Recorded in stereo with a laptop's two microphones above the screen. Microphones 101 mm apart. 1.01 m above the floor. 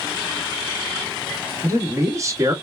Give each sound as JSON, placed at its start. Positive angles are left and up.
{"t": 1.6, "sound": "a man speaking", "side_deg": -35, "distance_m": 1.4}